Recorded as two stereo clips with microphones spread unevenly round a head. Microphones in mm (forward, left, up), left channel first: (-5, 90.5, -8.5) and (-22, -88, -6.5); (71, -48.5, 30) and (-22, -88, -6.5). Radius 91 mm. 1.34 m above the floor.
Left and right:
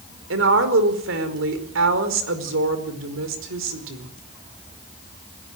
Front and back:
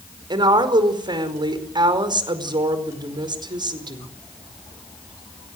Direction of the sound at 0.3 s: 110° right.